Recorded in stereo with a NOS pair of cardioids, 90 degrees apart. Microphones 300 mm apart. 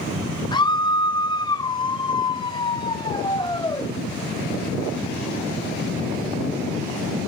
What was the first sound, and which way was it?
A scream, 15° left.